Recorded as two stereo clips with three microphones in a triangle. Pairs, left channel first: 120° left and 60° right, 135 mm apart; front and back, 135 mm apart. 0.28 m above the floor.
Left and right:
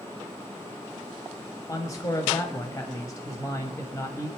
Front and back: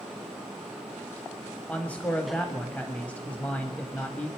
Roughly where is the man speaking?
Left.